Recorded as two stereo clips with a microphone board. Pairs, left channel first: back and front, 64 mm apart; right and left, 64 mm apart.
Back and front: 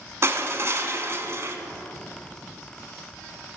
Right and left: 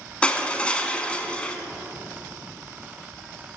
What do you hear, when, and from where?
0.2 s crushing: 25° right, 0.9 m